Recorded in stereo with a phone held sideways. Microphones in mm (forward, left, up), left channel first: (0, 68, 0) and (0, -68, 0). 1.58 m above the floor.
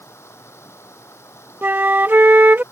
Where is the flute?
15° right (ahead or behind).